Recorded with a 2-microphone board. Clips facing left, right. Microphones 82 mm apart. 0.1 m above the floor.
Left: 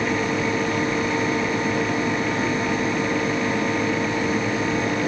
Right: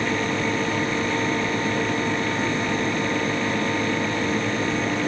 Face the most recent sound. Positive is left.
No sound to turn to.